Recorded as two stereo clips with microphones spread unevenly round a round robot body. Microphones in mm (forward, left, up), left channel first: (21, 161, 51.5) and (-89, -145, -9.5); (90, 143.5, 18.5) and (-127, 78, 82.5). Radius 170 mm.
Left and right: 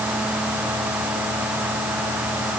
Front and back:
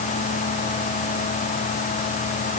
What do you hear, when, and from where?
Only background noise.